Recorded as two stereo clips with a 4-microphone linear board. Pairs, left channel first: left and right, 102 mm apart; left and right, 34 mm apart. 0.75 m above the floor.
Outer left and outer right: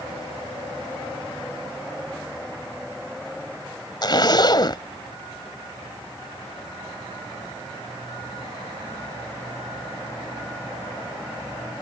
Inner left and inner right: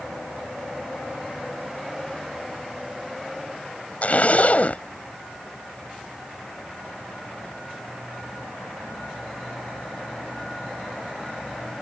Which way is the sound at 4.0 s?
45° left (ahead or behind).